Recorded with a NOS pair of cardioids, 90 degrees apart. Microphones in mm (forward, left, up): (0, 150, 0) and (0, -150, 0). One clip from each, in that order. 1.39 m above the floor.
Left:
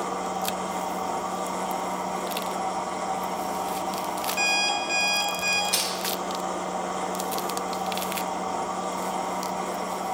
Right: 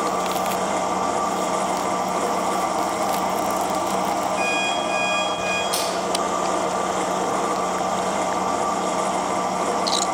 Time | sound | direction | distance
0.0 | a machine running | 45° right | 1.0 m
4.4 | an alarm clock | 40° left | 6.5 m
5.7 | crushing | 10° left | 8 m